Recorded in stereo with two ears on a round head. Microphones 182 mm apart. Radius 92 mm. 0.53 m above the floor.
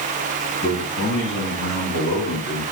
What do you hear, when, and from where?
0.6 s a man speaking: 65° left (ahead or behind), 5 m; by 2.6 s 75° left (ahead or behind), 5 m